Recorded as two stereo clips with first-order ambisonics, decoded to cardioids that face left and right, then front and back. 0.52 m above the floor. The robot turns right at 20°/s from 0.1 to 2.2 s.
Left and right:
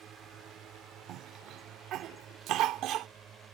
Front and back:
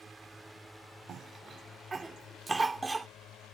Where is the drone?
100° right; by 3.5 s 40° right.